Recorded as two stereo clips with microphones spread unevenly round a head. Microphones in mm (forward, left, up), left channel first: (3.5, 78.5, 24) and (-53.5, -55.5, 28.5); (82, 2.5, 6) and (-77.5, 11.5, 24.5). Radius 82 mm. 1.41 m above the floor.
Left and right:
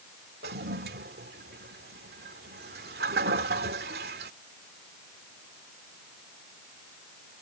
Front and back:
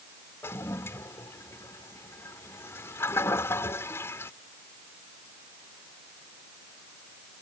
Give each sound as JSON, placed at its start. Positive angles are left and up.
{"t": 0.4, "sound": "a toilet flushing", "azimuth_deg": -80}